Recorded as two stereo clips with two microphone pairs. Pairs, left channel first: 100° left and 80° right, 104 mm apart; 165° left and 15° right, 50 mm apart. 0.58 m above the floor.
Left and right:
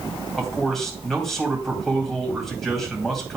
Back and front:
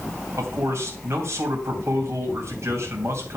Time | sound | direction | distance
0.4 | a man speaking | 10° left | 3 m